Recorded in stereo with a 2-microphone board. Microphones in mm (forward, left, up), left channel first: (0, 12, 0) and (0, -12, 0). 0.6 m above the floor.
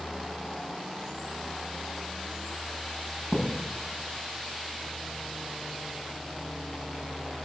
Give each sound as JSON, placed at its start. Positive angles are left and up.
{"t": 3.3, "sound": "a thud", "side_deg": -85, "distance_m": 9.0}